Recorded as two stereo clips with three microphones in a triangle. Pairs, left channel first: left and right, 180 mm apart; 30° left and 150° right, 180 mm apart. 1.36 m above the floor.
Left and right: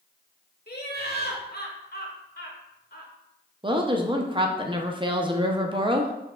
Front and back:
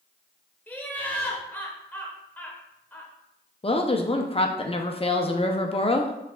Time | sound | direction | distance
0.7 | laughter | 110° left | 1.1 m
3.6 | a woman speaking | 30° right | 0.6 m